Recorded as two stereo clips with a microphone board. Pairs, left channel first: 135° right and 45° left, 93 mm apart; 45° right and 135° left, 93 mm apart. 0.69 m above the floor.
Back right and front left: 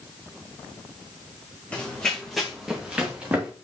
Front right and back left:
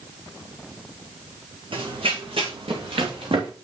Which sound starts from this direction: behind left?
Running footsteps, at 1.7 s.